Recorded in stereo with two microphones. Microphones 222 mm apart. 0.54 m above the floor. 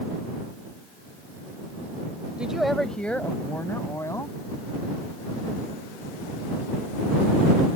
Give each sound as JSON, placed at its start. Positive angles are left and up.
{"t": 2.4, "sound": "a woman speaking", "side_deg": -5}